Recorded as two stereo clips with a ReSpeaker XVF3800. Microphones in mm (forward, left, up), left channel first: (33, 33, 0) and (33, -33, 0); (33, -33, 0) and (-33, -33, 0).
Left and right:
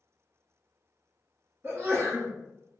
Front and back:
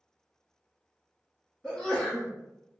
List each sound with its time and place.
1.6 s a sneeze: 65° right, 1.3 m